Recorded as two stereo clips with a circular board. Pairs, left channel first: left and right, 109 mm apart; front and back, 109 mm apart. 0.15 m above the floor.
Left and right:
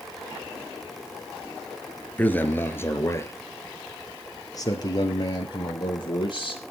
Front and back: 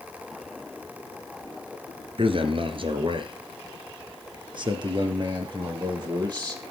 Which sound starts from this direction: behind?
A man speaking, at 2.2 s.